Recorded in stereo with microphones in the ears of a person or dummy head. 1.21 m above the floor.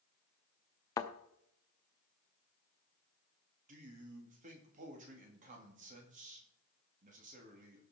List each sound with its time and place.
1.0 s a thud: 20° left (ahead or behind), 0.7 m
3.7 s a man speaking: 40° right (ahead or behind), 2.5 m